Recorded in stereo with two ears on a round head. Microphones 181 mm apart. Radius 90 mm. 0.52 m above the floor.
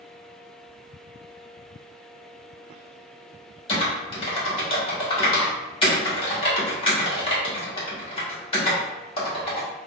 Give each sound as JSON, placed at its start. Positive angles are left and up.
{"t": 3.7, "sound": "typing on a keyboard", "side_deg": 30, "distance_m": 1.4}